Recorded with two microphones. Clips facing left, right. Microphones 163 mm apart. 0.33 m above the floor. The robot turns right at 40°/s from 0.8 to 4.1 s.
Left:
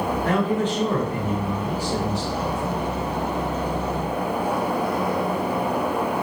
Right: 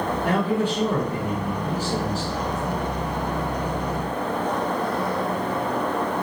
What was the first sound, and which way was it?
A man speaking, 15° right.